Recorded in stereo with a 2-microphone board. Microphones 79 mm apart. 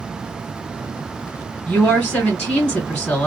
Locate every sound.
1.7 s a woman speaking: 15° left (ahead or behind), 1.6 m